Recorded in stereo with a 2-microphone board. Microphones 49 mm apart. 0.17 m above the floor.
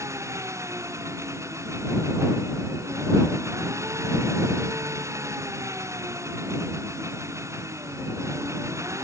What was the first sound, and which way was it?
An engine running, 85° right.